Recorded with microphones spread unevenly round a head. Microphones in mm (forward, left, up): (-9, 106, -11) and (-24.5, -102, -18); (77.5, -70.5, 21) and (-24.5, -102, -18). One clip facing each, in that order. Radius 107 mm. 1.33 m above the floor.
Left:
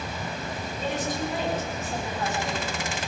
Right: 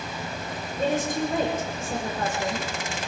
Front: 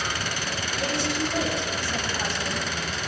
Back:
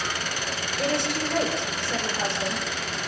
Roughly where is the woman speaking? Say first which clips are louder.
Right 5 dB, back 2 dB; behind right.